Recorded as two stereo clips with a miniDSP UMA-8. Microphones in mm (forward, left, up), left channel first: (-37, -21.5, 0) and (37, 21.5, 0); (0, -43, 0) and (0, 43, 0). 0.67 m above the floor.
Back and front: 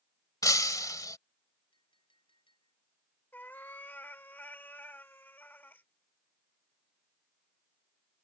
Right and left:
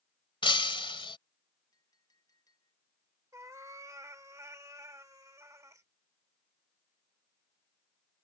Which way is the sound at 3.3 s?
145° left.